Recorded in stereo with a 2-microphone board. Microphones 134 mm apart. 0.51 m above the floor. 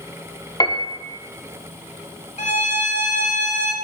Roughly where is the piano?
Left.